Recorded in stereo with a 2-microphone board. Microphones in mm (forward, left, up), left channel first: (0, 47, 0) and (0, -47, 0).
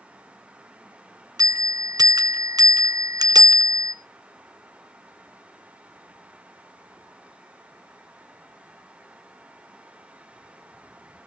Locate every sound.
1.4 s a bell: 45° right (ahead or behind), 0.7 m